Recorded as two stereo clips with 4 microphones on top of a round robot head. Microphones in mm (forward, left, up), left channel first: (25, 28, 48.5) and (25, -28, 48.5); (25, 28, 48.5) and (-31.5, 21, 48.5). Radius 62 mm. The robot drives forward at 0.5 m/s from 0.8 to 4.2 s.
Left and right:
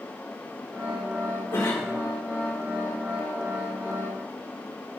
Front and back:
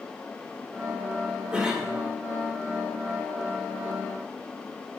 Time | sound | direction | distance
1.5 | a cough | 115° left | 2 m